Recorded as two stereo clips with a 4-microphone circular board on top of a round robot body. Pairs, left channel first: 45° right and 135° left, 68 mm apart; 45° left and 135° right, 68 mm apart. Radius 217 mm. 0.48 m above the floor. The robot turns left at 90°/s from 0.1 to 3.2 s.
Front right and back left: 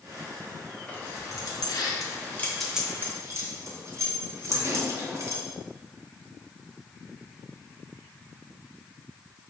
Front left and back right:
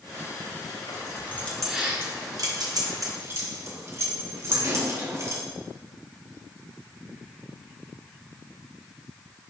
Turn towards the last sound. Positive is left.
turn(degrees=175)